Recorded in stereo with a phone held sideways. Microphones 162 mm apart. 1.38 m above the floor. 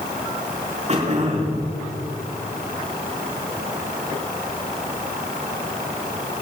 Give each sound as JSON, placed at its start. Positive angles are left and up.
{"t": 0.9, "sound": "throat clearing", "side_deg": -45, "distance_m": 5.5}